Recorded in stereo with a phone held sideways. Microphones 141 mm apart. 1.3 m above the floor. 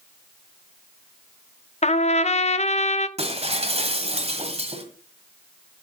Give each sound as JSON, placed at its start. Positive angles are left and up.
{"t": 1.8, "sound": "a trumpet", "side_deg": 55, "distance_m": 0.6}
{"t": 3.2, "sound": "breaking glass", "side_deg": -50, "distance_m": 1.6}